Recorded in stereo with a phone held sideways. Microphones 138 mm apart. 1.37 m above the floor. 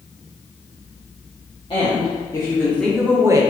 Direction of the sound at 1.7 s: 35° left (ahead or behind).